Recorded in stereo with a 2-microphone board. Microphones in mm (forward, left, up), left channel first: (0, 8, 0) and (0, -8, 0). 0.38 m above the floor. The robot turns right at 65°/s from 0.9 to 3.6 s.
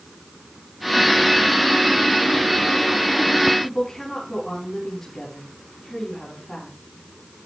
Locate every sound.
3.6 s a woman speaking: 25° left (ahead or behind), 3.5 m